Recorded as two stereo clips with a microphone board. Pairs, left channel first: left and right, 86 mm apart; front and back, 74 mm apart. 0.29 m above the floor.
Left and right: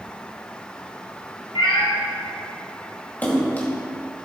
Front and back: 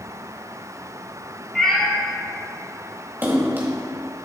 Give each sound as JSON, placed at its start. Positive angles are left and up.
{"t": 1.6, "sound": "a cat meowing", "azimuth_deg": 85, "distance_m": 2.0}
{"t": 3.2, "sound": "a splash", "azimuth_deg": 145, "distance_m": 1.7}